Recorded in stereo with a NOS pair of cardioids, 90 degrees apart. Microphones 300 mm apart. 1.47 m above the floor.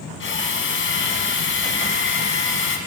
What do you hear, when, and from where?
0.2 s a drill: 45° left, 5.5 m